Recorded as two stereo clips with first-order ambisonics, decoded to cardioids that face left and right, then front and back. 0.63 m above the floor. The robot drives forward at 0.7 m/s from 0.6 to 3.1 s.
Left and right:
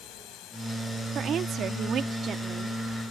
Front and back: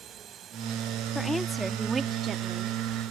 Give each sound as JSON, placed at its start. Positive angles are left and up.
{"t": 0.0, "sound": "a drone", "azimuth_deg": 120}
{"t": 1.1, "sound": "a woman speaking", "azimuth_deg": -70}